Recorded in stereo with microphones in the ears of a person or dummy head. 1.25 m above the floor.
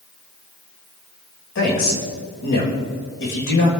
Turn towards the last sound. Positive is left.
turn(degrees=60)  # may be behind; listen again after turning